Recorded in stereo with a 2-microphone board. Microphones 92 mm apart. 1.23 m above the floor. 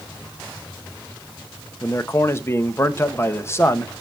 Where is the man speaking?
30° left (ahead or behind), 1.2 m.